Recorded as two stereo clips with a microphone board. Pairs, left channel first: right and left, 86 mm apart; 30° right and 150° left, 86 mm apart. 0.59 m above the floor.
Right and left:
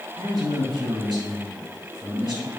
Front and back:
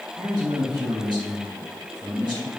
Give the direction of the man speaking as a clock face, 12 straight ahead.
8 o'clock.